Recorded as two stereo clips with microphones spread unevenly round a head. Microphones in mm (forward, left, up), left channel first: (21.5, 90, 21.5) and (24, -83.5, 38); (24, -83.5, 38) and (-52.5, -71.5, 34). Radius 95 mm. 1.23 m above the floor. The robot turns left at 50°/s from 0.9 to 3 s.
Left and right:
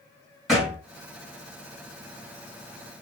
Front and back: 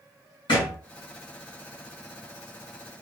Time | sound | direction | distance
0.5 | a thud | 5° right | 1.3 m